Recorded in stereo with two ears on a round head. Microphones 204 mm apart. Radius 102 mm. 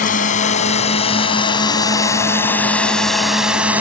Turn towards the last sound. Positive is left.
turn(degrees=-5)  # may be behind; listen again after turning